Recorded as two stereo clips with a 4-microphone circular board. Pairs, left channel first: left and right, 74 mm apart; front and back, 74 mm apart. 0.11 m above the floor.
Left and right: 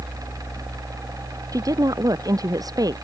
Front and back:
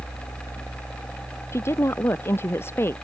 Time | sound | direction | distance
1.5 | a woman speaking | 55° right | ?